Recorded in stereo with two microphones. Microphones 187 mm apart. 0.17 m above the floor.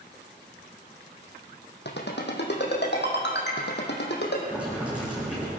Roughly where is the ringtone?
Left.